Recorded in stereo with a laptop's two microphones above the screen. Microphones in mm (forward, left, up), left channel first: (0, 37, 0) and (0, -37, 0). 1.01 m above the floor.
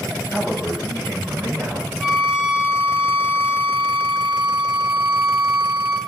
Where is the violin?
5° right (ahead or behind), 0.9 m.